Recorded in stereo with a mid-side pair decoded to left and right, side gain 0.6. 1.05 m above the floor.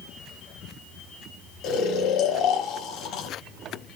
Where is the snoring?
70° left, 2 m.